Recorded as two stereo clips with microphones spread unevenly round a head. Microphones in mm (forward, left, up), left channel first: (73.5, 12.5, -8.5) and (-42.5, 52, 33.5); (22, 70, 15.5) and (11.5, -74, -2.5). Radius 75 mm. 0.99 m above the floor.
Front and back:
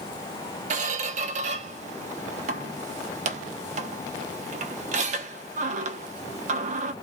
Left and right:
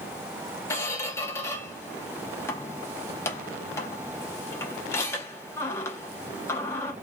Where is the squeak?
155° left, 0.7 m.